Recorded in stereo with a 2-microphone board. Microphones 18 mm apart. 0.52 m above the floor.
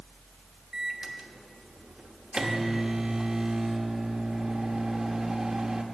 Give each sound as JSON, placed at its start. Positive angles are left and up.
{"t": 0.7, "sound": "a microwave", "side_deg": -45, "distance_m": 1.0}